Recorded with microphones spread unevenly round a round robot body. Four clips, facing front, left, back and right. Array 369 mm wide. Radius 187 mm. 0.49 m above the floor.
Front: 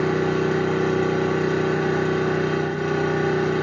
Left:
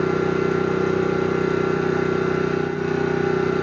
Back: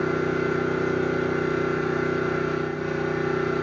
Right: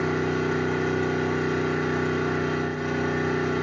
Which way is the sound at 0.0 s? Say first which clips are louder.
Left 5 dB, front 3 dB; 50° left.